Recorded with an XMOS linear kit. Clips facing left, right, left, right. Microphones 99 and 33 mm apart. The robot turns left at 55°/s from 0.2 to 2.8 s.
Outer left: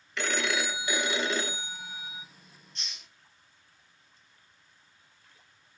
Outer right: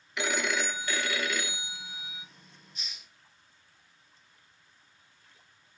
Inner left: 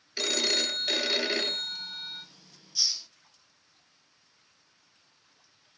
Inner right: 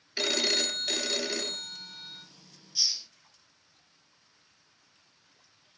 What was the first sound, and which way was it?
A phone ringing, 165° right.